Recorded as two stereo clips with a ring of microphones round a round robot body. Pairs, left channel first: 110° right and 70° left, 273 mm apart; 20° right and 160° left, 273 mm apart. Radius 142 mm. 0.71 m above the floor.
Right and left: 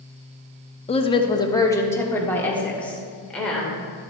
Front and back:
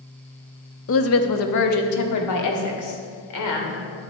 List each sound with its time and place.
0.9 s a woman speaking: 50° right, 0.8 m; by 3.8 s 25° right, 2.5 m